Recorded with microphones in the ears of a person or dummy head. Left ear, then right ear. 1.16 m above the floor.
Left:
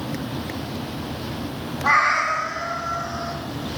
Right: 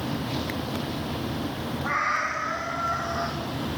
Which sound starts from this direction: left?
A cat meowing, at 1.8 s.